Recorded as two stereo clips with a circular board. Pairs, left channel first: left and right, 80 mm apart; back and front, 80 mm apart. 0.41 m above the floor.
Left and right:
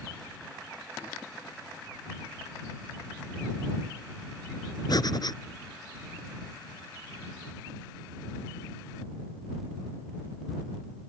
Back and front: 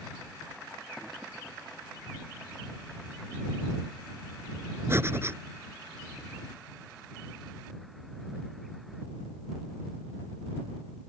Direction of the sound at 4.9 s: 60° left.